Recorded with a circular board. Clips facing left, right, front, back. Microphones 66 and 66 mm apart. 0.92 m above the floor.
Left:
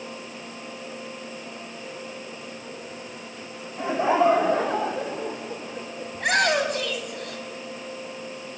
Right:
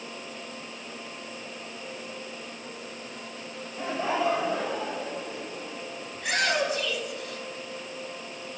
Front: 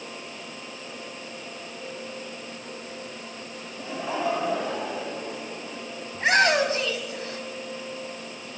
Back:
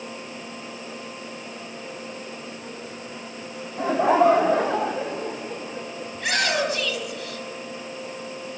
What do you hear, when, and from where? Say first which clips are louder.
3.8 s laughter: left 7 dB, back 11 dB; 165° left, 1.5 m; by 6.1 s 120° left, 3.5 m
6.1 s a shout: left 5 dB, front 4 dB; 60° left, 5.5 m